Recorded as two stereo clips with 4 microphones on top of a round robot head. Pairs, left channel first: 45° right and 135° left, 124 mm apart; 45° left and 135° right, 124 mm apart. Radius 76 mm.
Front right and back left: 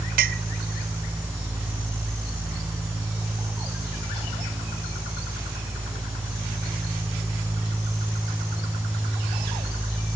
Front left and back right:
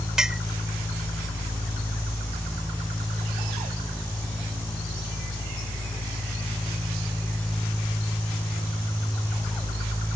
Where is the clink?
140° left.